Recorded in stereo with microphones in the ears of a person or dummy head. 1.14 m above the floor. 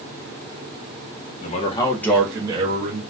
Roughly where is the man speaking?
Left.